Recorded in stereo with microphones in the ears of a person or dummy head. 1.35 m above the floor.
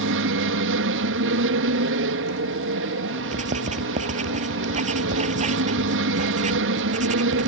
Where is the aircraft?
60° right (ahead or behind).